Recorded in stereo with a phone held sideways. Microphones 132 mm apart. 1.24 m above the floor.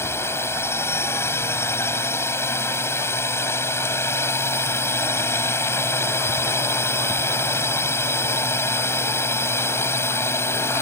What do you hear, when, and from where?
0.0 s a drone: 20° left (ahead or behind)